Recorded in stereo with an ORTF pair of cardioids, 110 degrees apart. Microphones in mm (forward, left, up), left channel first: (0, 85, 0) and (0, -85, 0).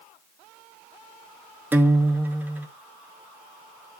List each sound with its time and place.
1.7 s a guitar: 10° right, 0.9 m